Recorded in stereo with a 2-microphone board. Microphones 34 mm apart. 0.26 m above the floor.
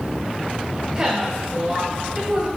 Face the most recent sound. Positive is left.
turn(degrees=-25)  # may be behind; listen again after turning